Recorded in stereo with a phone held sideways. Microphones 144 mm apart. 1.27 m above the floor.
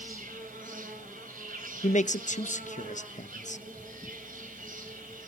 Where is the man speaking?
55° left (ahead or behind), 1.0 m.